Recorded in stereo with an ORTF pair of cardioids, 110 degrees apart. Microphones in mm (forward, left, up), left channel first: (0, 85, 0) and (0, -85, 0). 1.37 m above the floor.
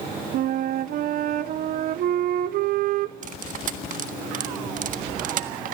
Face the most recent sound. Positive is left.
turn(degrees=-55)